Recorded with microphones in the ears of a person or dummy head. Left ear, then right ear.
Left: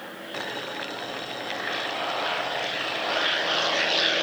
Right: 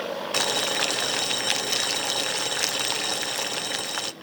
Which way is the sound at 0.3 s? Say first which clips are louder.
Right 8 dB; 75° right (ahead or behind).